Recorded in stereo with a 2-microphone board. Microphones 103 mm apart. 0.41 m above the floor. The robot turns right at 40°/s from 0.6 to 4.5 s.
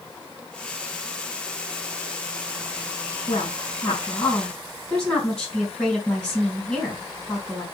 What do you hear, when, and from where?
3.3 s a woman speaking: 120° left, 4 m; by 7.6 s 170° left, 4 m